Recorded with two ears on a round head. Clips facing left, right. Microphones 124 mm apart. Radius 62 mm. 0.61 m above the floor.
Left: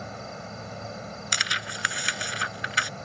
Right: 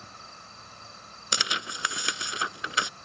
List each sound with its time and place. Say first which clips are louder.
0.0 s an insect: left 11 dB; 60° left (ahead or behind)
1.3 s tearing paper: right 2 dB; 20° right (ahead or behind)